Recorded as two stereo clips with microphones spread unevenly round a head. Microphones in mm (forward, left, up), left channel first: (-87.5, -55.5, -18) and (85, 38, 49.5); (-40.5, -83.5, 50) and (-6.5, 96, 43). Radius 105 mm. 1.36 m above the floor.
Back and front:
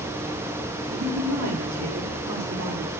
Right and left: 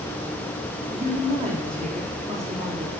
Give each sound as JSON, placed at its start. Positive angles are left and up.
{"t": 0.9, "sound": "a woman speaking", "azimuth_deg": 15, "distance_m": 4.0}